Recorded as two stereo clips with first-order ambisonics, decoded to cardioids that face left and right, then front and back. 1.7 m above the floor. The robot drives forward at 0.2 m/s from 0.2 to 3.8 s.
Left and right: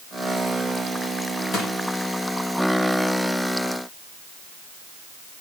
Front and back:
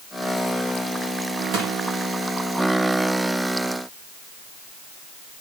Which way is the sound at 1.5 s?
140° left.